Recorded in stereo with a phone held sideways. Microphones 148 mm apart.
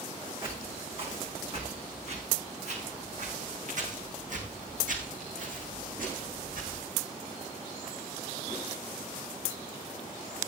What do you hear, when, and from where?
0.4 s footsteps: 40° right (ahead or behind), 6 m; by 6.8 s 70° right (ahead or behind), 5.5 m